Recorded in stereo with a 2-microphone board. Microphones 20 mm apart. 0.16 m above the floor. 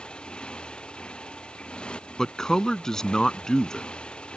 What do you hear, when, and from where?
0.0 s a motorcycle: 55° left (ahead or behind); by 4.4 s 60° left (ahead or behind)
2.2 s a man speaking: 30° left (ahead or behind)